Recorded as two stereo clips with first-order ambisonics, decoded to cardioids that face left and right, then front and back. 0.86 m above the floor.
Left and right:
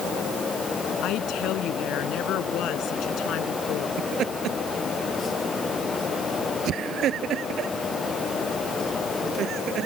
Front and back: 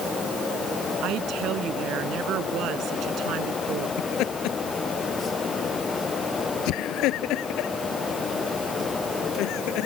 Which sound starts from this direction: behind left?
A woman speaking, at 1.0 s.